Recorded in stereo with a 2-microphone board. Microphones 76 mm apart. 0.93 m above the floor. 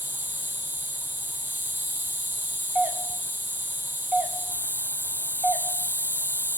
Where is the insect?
25° right (ahead or behind), 0.8 m.